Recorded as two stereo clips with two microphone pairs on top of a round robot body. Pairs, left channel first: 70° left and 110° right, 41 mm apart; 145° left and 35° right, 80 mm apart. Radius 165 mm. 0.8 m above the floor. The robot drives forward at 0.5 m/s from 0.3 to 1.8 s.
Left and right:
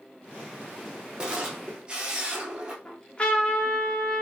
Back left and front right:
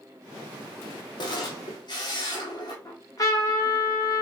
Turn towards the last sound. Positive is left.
turn(degrees=130)